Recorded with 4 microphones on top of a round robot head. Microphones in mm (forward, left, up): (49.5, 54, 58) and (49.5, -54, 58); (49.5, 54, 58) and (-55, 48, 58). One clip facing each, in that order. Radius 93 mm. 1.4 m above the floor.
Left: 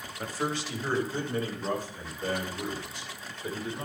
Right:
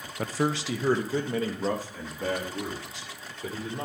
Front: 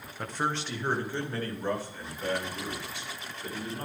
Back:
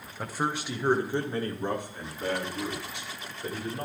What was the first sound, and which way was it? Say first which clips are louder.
A man speaking: right 4 dB, back 1 dB; 90° right.